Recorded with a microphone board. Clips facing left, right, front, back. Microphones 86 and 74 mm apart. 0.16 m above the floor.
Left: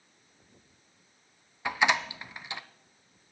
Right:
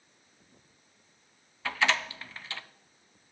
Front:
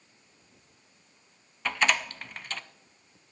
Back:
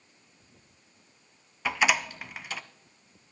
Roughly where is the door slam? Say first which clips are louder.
Left 2 dB, back 1 dB; behind left.